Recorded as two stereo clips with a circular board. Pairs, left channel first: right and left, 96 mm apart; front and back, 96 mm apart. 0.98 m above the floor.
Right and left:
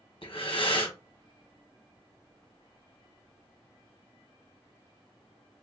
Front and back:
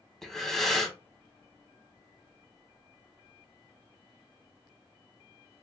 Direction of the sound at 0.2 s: 85° right.